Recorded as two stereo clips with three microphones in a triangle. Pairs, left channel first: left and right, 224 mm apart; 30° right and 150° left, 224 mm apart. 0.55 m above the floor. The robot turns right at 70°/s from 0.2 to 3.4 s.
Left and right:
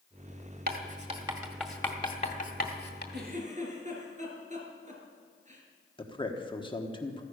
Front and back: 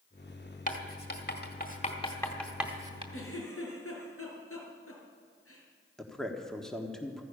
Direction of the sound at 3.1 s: 50° right.